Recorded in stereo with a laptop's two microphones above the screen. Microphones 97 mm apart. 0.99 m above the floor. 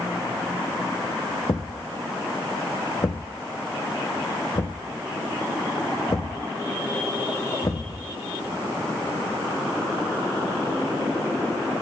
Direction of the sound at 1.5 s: 40° left (ahead or behind).